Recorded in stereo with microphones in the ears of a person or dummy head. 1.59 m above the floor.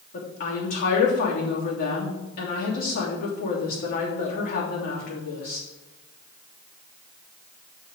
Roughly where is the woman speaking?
Left.